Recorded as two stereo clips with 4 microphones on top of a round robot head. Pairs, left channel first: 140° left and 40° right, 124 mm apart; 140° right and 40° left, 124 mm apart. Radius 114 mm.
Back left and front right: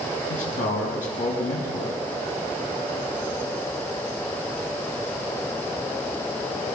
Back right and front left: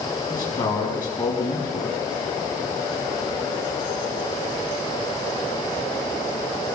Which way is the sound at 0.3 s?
145° left.